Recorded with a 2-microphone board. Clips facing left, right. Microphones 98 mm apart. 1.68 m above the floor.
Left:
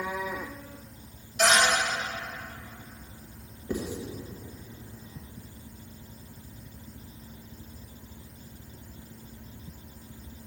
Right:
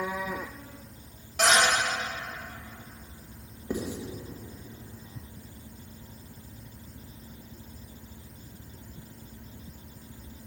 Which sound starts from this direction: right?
A cupboard door, at 1.4 s.